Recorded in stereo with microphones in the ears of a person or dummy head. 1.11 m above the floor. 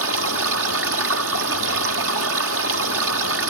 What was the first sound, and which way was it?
Running water, 75° right (ahead or behind).